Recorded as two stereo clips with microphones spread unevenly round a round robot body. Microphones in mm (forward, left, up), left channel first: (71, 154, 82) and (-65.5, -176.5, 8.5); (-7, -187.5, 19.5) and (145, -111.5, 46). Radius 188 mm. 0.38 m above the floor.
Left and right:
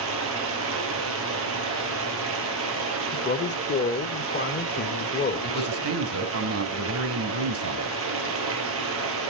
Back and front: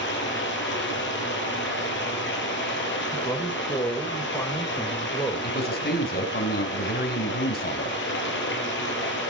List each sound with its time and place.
0.0 s running water: 165° right, 3.5 m
3.1 s a man speaking: 135° left, 1.1 m
5.4 s a man speaking: 155° right, 3 m